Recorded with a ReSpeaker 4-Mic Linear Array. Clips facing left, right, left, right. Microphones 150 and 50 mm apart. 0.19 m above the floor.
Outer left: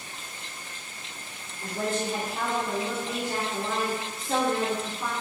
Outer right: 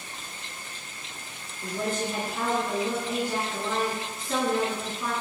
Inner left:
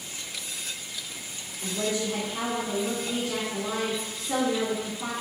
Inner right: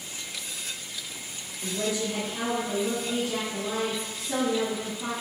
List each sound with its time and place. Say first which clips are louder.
1.6 s a woman speaking: even, even; 45° left (ahead or behind), 1.7 m